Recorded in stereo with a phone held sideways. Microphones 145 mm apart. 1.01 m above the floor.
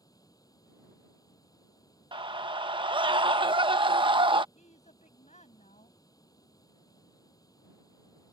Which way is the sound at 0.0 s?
25° left (ahead or behind).